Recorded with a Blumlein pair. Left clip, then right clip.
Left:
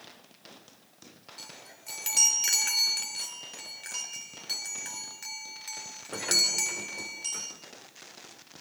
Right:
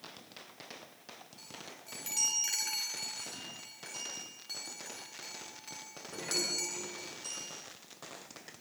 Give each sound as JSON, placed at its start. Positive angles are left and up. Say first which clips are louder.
{"t": 1.4, "sound": "a chime", "louder": "left 4 dB", "azimuth_deg": 30, "distance_m": 4.0}